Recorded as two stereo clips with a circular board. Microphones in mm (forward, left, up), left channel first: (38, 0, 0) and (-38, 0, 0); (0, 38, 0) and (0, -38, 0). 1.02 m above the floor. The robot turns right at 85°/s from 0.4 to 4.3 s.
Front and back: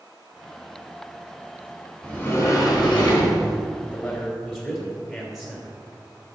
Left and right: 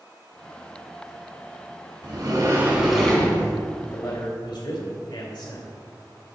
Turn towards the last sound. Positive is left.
turn(degrees=90)